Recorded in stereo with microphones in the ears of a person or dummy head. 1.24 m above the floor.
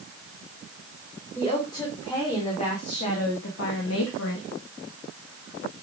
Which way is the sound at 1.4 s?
30° left (ahead or behind).